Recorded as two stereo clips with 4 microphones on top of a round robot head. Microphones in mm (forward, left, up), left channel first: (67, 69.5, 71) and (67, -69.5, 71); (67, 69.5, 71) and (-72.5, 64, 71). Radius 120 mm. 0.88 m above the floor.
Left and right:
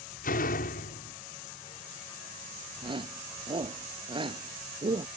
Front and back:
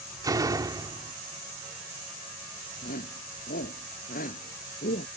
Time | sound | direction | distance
0.2 | a door slam | 115° left | ?
2.8 | a shout | 35° right | ?